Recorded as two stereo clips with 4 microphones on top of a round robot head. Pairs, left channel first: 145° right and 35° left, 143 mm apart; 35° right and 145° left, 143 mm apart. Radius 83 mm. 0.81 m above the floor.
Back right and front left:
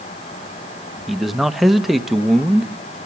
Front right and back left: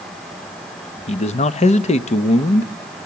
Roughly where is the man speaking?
Ahead right.